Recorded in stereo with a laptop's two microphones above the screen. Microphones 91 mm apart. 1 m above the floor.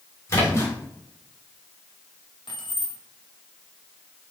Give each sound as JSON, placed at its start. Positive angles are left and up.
{"t": 0.3, "sound": "a splash", "side_deg": 30, "distance_m": 2.5}
{"t": 2.5, "sound": "keys jangling", "side_deg": 60, "distance_m": 1.3}